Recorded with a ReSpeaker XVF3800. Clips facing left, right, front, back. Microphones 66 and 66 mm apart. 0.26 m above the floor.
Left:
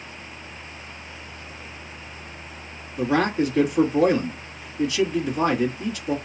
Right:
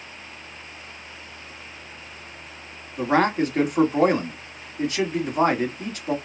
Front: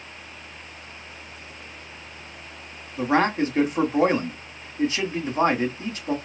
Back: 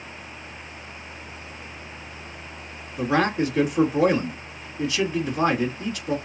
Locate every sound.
3.0 s a man speaking: 50° right, 1.5 m